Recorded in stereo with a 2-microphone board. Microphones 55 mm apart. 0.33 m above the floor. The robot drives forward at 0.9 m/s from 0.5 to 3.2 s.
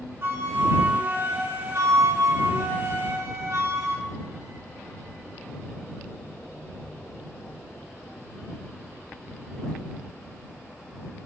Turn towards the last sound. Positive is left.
turn(degrees=-65)  # may be behind; listen again after turning